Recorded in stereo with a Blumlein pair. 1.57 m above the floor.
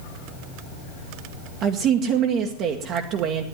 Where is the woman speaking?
35° right, 1.2 m.